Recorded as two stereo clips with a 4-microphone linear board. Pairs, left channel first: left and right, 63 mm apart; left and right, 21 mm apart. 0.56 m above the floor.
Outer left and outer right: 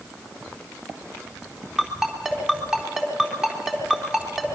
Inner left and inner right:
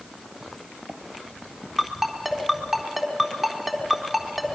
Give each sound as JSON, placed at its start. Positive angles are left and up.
{"t": 1.8, "sound": "a ringtone", "side_deg": -10, "distance_m": 4.0}